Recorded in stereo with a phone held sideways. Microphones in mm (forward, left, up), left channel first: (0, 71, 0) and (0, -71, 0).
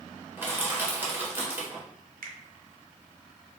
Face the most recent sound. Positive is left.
turn(degrees=-80)